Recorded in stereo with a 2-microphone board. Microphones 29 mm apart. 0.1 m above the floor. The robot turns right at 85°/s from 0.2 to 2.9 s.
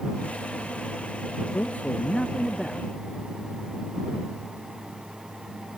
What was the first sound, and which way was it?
A man speaking, 95° left.